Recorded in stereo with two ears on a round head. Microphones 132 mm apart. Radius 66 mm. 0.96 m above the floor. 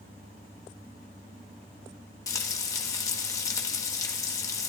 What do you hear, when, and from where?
2.3 s frying: 20° left (ahead or behind), 2 m